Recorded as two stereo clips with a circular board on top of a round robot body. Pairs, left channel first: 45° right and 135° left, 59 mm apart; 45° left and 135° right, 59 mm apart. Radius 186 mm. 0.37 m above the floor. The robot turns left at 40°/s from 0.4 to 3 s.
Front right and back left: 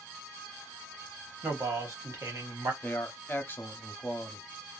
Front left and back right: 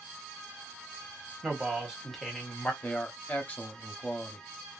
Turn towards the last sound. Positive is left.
turn(degrees=-10)